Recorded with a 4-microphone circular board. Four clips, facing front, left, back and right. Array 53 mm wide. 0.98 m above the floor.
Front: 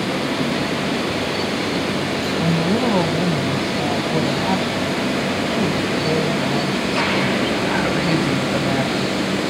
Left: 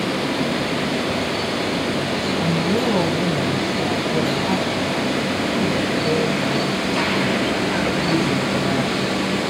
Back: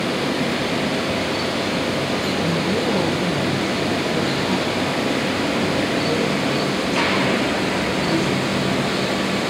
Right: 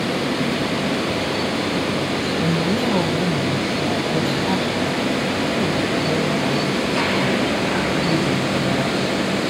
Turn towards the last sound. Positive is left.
turn(degrees=0)